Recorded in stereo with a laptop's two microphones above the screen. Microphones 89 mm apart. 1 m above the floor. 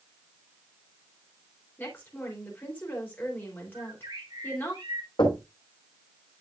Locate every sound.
1.8 s a woman speaking: 25° left (ahead or behind), 3.5 m
3.7 s a bird: 70° right (ahead or behind), 7 m
5.2 s knocking: 60° left (ahead or behind), 4.5 m